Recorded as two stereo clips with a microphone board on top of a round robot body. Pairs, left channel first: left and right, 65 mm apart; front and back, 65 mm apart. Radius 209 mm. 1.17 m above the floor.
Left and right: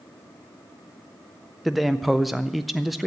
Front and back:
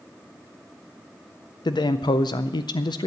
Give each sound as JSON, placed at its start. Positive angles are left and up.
{"t": 1.6, "sound": "a man speaking", "azimuth_deg": 0, "distance_m": 0.6}